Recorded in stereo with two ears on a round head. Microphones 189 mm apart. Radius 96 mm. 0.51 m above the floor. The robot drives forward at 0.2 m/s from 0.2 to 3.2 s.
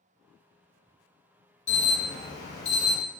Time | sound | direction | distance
1.7 | an alarm | 35° left (ahead or behind) | 1.7 m